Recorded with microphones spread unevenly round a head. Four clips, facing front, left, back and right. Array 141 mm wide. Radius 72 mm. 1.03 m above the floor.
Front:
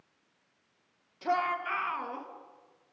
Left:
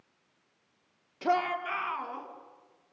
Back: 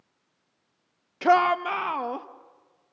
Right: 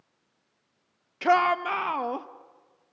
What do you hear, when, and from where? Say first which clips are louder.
1.2 s a shout: right 7 dB, back 10 dB; straight behind, 0.7 m; by 2.3 s 120° right, 1.3 m